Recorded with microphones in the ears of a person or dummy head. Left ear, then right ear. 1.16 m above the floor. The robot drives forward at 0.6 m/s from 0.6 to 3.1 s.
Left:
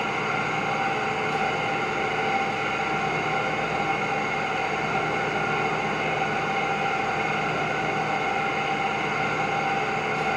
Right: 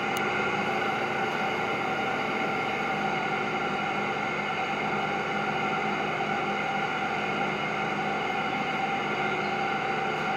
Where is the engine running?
70° right (ahead or behind), 1.2 m; by 10.4 s 30° right (ahead or behind), 2 m.